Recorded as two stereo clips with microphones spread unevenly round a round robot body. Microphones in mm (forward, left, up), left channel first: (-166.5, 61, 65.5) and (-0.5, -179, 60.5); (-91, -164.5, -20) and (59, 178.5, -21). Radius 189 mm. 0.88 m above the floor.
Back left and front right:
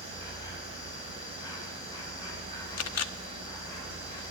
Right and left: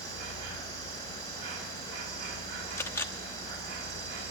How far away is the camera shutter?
About 0.9 m.